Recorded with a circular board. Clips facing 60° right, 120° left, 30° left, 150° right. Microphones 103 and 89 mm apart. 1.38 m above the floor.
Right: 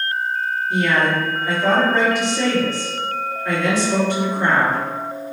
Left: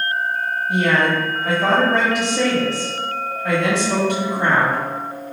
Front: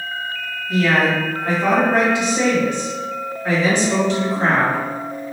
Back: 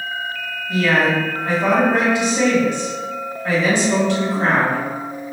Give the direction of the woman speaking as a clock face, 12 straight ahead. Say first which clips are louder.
Left 1 dB, even; 8 o'clock.